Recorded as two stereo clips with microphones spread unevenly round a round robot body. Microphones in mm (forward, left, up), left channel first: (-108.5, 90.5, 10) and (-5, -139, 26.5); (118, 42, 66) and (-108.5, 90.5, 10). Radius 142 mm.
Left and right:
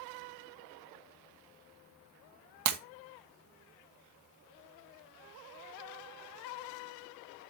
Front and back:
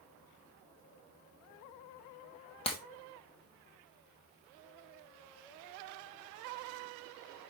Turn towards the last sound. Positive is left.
turn(degrees=-80)